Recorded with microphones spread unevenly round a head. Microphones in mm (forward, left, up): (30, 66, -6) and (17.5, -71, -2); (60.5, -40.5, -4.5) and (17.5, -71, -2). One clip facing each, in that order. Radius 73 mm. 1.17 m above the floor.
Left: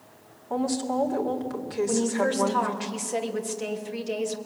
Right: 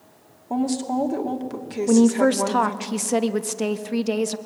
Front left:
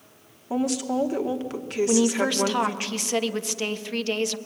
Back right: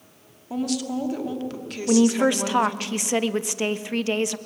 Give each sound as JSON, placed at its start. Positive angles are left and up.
{"t": 0.5, "sound": "a woman speaking", "azimuth_deg": -30, "distance_m": 2.5}
{"t": 1.9, "sound": "a woman speaking", "azimuth_deg": -75, "distance_m": 1.4}